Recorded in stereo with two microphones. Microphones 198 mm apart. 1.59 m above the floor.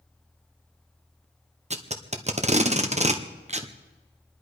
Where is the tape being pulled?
35° right (ahead or behind), 1.0 m.